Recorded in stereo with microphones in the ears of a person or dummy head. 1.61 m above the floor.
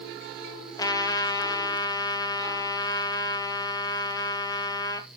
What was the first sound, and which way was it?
A trumpet, 20° left (ahead or behind).